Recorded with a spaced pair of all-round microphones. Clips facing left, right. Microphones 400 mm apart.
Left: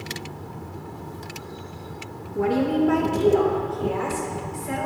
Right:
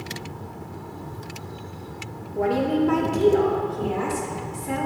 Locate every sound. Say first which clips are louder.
2.4 s a woman speaking: left 1 dB; 25° left (ahead or behind), 0.8 m; by 4.9 s 50° right (ahead or behind), 2.5 m